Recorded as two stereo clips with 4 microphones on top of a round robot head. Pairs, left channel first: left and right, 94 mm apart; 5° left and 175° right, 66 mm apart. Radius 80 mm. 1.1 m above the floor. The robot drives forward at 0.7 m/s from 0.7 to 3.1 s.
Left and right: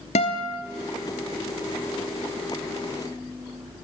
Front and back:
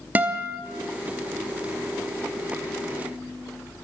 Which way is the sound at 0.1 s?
120° left.